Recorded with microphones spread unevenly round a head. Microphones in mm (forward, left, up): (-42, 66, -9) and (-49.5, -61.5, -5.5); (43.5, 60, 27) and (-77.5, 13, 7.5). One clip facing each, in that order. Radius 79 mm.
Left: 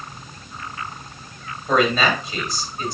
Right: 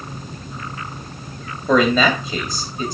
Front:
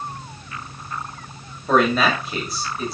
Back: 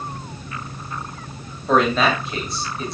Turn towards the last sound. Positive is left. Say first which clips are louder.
# right 3 dB, even
turn(degrees=-65)